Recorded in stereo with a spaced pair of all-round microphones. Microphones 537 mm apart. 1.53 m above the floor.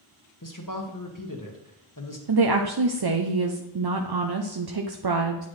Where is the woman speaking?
45° right (ahead or behind), 0.6 m.